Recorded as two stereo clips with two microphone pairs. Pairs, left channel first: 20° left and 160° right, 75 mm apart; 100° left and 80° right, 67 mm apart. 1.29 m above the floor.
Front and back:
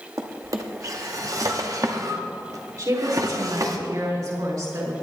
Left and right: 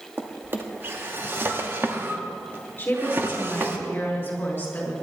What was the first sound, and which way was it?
A drawer, 130° right.